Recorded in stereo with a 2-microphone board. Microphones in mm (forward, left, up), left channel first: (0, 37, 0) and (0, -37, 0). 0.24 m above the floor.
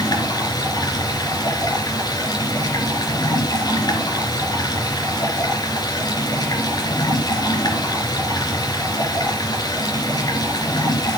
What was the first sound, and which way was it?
Running water, 65° left (ahead or behind).